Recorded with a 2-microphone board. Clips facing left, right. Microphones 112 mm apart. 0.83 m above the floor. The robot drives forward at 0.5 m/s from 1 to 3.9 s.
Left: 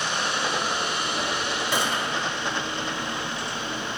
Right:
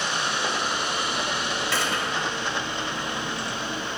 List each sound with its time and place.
1.7 s a gunshot: 15° left (ahead or behind), 1.5 m; by 2.3 s 20° left (ahead or behind), 1.2 m